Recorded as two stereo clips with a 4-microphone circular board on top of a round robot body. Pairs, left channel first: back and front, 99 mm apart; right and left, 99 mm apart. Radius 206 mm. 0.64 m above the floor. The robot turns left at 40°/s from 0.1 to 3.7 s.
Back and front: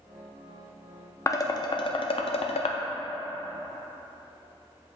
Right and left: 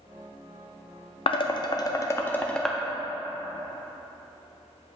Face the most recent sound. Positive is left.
turn(degrees=145)